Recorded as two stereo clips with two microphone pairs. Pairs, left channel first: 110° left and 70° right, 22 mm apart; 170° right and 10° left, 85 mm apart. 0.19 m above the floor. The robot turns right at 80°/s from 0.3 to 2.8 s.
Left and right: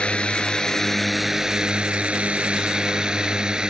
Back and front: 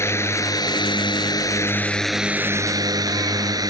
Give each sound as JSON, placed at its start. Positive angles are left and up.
{"t": 0.0, "sound": "a drone", "azimuth_deg": 135}